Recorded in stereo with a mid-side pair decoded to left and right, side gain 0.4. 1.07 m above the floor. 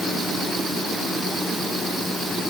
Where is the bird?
I don't hear a bird.